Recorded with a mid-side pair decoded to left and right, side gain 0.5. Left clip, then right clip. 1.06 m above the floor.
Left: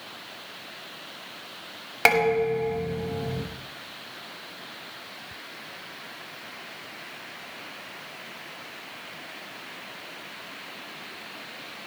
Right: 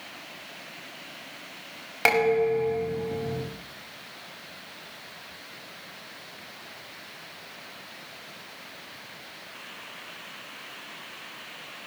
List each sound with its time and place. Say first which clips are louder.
2.0 s dishes clattering: left 1 dB; 20° left, 5 m